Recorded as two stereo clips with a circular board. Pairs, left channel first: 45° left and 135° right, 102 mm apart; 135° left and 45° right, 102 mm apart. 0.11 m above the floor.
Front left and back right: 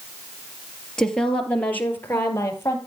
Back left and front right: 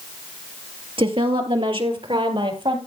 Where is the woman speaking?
40° right, 2.5 m; by 2.8 s 15° right, 3 m.